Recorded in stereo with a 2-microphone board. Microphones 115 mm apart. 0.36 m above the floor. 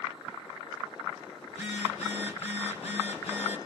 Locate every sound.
1.5 s a phone buzzing: 70° left (ahead or behind), 2.5 m